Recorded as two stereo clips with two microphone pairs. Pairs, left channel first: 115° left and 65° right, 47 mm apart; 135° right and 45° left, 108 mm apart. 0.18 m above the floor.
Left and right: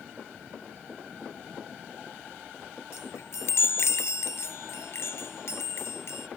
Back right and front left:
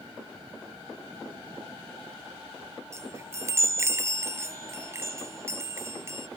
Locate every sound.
2.9 s a chime: 110° left